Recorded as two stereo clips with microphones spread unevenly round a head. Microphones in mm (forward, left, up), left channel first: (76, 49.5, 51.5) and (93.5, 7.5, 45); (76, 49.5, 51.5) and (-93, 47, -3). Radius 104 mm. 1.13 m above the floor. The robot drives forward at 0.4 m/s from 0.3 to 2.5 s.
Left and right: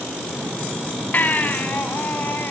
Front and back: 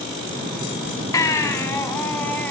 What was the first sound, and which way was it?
A baby crying, 65° left.